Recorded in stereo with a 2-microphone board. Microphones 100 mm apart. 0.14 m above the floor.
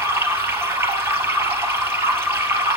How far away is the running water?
About 3 m.